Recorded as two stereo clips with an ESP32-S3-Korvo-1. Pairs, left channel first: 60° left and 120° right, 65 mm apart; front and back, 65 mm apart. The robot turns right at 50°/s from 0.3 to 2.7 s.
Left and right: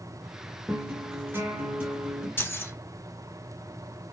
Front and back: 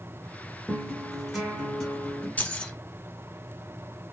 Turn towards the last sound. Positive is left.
turn(degrees=60)